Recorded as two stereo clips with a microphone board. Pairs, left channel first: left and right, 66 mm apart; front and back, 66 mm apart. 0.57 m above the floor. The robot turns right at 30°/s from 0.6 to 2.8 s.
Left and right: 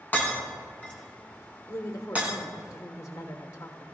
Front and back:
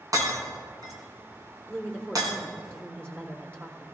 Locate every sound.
0.1 s breaking glass: 155° left, 2.5 m; by 2.4 s 155° right, 2.5 m
1.7 s a woman speaking: 100° left, 1.4 m; by 3.9 s 130° left, 1.4 m